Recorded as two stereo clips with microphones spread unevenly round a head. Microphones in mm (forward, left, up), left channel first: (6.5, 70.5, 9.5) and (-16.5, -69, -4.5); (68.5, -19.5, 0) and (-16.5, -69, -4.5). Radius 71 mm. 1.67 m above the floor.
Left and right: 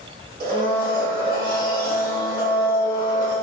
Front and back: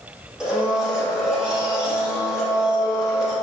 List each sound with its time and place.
0.4 s a blender: 65° right, 1.2 m